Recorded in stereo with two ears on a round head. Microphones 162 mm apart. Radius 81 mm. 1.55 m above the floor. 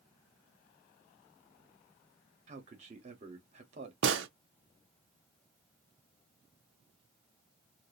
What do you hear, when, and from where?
2.5 s a man speaking: 40° right (ahead or behind), 1.0 m
4.0 s a gunshot: 70° right (ahead or behind), 0.5 m